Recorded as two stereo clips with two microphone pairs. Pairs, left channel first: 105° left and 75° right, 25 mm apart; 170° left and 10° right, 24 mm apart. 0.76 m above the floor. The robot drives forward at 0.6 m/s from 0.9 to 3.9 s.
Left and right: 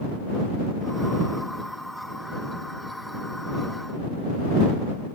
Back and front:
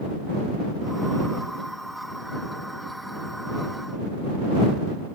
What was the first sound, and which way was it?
Only background noise.